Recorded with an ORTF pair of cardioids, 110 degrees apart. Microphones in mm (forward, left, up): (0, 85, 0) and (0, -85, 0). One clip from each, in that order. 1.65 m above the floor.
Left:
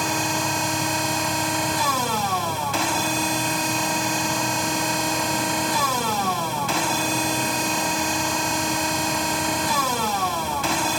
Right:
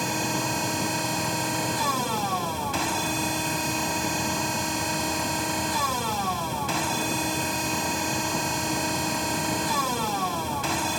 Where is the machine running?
25° left.